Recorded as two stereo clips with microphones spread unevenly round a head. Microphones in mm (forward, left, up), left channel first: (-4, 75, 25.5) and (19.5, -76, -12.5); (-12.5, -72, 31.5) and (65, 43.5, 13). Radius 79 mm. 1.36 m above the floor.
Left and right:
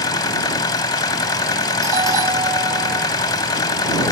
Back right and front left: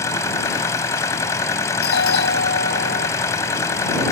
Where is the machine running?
165° left.